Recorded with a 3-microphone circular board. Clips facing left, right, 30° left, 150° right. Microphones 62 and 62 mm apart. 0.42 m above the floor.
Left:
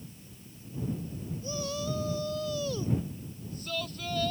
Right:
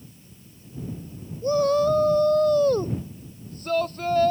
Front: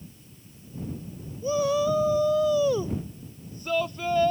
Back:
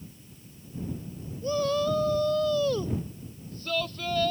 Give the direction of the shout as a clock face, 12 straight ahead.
2 o'clock.